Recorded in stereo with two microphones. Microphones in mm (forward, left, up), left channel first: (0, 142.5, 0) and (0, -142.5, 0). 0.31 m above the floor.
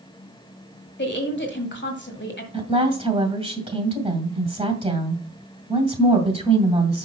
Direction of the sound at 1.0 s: 45° left (ahead or behind).